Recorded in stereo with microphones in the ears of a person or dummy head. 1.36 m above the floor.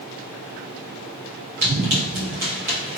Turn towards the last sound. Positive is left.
turn(degrees=5)  # may be behind; listen again after turning